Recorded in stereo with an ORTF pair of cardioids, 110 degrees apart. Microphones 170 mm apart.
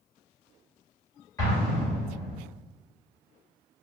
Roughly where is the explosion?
Ahead.